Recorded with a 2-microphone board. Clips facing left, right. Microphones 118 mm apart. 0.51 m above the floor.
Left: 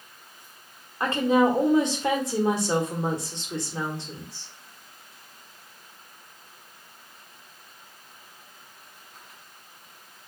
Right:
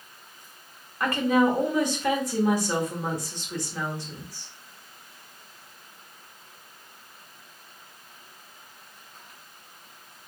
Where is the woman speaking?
25° left (ahead or behind), 1.0 m.